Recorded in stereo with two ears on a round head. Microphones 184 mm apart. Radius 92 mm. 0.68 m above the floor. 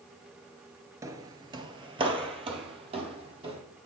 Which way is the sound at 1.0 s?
15° right (ahead or behind).